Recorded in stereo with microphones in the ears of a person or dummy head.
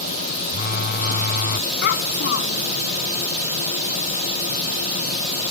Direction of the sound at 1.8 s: 65° left (ahead or behind).